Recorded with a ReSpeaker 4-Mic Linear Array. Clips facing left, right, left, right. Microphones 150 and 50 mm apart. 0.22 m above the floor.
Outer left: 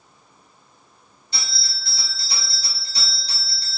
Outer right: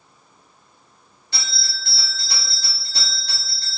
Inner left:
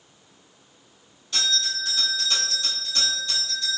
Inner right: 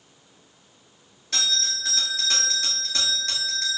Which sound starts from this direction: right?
A bell, at 1.3 s.